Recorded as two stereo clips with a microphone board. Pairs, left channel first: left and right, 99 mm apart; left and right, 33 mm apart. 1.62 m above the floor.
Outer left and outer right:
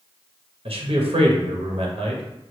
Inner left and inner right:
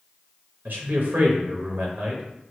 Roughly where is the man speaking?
Right.